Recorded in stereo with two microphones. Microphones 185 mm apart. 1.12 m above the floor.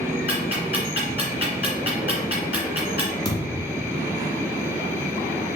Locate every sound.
0.3 s ticking: 30° right (ahead or behind), 2.0 m
3.2 s a thud: 20° left (ahead or behind), 1.0 m